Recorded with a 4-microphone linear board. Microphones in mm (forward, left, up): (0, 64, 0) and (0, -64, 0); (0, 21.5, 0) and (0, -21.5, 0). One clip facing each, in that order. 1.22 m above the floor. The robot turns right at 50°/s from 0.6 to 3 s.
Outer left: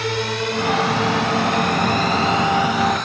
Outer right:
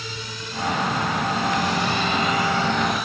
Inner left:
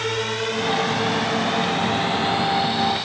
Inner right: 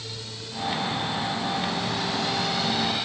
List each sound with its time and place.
0.0 s a drone: 65° left (ahead or behind); by 3.1 s 5° right (ahead or behind)